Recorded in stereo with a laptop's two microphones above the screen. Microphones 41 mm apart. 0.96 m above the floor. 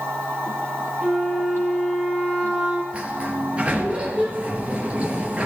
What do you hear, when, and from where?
0.0 s a machine running: 80° right, 4.5 m
1.0 s a flute: 10° right (ahead or behind), 4 m
2.9 s a sliding door: 30° right (ahead or behind), 3 m